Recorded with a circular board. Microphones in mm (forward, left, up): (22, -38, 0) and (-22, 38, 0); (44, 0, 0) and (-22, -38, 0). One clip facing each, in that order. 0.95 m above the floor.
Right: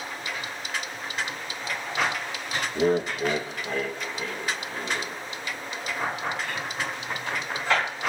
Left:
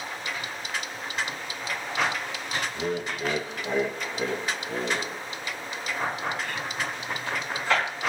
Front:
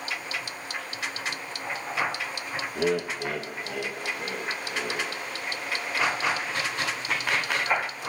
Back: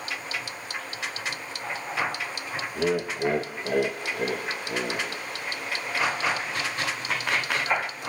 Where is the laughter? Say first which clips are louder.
Right 11 dB, back 1 dB; 50° right, 0.7 m; by 5.1 s 175° left, 2.0 m.